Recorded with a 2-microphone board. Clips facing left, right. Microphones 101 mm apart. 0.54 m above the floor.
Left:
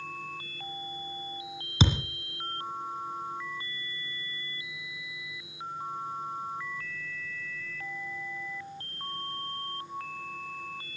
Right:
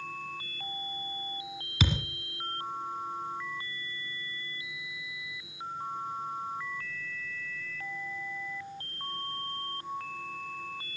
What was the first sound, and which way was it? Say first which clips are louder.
A thud: left 4 dB; 30° left (ahead or behind).